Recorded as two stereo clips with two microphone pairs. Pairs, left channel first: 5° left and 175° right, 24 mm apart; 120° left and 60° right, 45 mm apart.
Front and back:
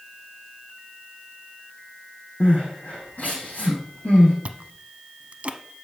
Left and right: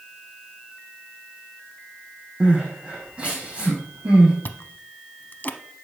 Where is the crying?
Straight ahead, 4.5 m.